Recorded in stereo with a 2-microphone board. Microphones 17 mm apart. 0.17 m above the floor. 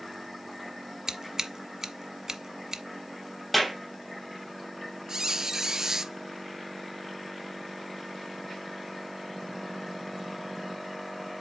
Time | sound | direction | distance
1.1 | scissors | 35° right (ahead or behind) | 1.1 m
3.5 | a clap | 5° right (ahead or behind) | 5.5 m
5.1 | a squeak | 40° right (ahead or behind) | 0.7 m